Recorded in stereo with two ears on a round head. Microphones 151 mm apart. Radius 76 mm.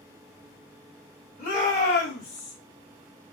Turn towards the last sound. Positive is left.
turn(degrees=75)  # may be behind; listen again after turning